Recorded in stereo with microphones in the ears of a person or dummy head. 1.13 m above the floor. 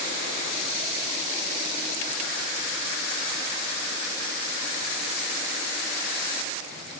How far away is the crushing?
I don't hear crushing.